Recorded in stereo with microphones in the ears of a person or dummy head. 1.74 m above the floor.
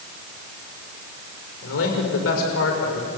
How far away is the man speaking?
About 6 m.